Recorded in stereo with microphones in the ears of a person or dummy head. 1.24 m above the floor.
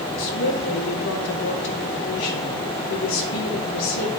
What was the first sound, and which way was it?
A woman speaking, 75° left (ahead or behind).